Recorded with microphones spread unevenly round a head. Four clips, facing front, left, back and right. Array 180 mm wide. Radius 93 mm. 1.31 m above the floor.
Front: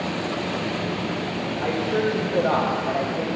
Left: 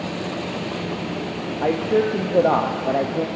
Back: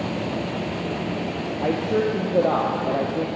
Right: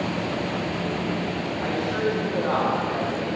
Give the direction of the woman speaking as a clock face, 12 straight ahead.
8 o'clock.